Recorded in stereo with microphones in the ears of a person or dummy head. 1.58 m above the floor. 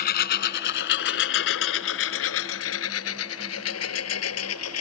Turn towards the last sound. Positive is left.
turn(degrees=80)